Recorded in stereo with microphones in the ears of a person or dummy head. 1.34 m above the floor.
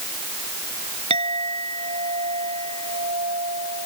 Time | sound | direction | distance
1.1 | a clink | 30° right (ahead or behind) | ?